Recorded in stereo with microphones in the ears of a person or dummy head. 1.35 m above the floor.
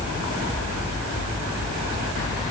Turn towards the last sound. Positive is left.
No sound to turn to.